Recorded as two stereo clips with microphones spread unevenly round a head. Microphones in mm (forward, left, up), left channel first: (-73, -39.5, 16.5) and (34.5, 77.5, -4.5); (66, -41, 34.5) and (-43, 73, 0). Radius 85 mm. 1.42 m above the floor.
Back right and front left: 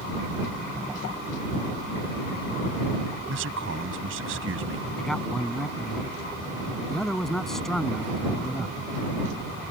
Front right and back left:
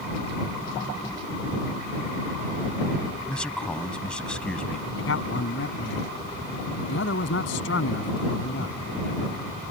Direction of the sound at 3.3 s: 35° left.